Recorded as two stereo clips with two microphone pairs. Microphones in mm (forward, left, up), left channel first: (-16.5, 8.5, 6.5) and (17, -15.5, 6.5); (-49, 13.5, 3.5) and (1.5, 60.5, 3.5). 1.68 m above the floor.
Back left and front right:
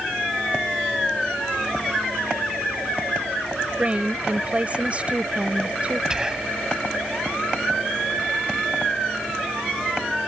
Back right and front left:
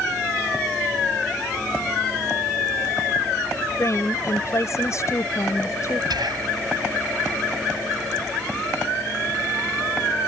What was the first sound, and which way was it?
A woman speaking, 95° right.